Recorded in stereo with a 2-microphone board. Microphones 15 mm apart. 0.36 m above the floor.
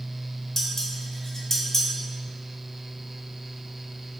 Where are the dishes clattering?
30° left (ahead or behind), 0.8 m.